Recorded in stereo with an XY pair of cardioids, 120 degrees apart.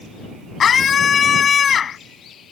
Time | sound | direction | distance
0.6 | a scream | 40° left | ?